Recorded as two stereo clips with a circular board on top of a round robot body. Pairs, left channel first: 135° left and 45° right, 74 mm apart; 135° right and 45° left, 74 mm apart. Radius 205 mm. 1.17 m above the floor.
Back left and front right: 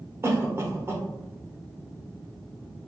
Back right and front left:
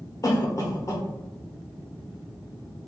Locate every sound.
0.2 s a cough: 100° right, 1.0 m